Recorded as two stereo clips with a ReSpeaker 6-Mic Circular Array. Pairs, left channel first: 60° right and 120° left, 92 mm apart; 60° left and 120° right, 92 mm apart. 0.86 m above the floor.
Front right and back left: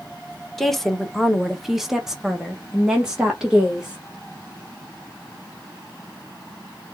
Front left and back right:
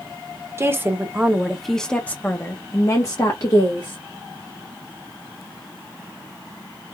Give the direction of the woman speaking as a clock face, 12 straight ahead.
5 o'clock.